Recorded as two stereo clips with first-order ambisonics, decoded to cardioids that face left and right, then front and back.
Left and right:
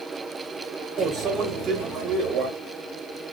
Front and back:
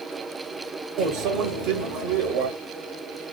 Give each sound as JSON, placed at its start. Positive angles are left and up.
{"t": 1.0, "sound": "a microwave", "azimuth_deg": -150, "distance_m": 0.8}